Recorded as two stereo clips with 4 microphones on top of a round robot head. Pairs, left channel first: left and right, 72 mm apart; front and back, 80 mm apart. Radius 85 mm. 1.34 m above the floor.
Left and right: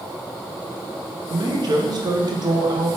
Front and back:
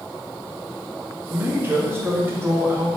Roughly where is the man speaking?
Behind right.